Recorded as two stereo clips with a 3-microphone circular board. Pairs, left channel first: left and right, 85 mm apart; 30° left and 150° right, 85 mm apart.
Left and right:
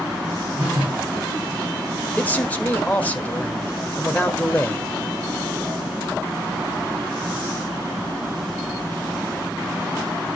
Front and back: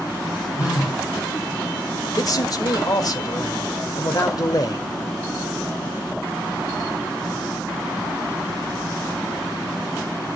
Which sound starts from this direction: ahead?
A phone buzzing, at 0.6 s.